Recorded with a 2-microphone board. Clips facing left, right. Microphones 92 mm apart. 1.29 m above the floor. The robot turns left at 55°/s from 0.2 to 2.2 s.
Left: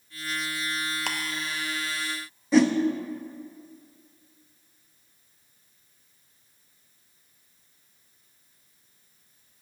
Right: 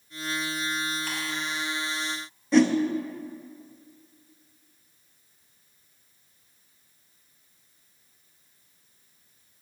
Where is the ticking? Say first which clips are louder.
Left 2 dB; 80° left, 0.9 m; by 1.2 s 85° left, 0.9 m.